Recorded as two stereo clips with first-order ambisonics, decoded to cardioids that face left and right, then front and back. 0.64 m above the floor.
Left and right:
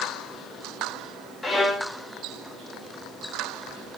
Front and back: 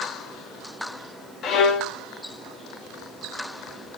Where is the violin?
15° left, 0.7 m.